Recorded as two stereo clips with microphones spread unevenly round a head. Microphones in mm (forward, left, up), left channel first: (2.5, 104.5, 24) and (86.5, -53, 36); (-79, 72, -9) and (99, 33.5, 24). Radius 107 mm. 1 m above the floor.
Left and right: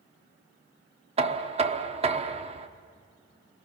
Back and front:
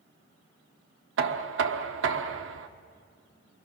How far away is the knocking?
About 1.4 m.